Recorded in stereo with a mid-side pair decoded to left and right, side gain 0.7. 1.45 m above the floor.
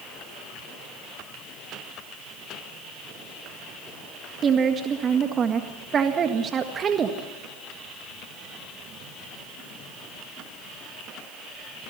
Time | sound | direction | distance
4.4 | a woman speaking | 35° right | 1.8 m